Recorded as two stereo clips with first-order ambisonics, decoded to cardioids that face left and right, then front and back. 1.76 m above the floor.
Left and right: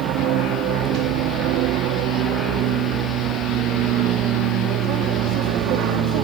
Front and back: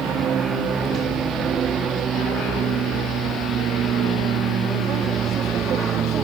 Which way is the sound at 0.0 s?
125° right.